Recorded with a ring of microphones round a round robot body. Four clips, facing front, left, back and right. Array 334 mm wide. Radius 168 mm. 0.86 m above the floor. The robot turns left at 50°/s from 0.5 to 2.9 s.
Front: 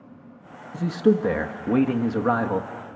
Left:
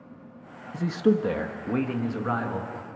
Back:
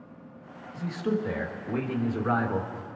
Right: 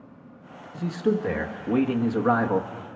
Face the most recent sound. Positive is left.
turn(degrees=-65)